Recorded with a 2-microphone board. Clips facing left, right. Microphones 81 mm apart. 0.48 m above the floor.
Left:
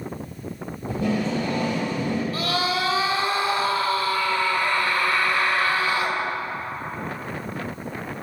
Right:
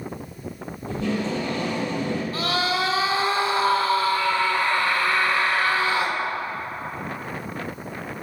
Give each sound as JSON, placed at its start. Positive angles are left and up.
{"t": 0.9, "sound": "tape being pulled", "side_deg": 10, "distance_m": 3.0}
{"t": 2.3, "sound": "a scream", "side_deg": -30, "distance_m": 1.7}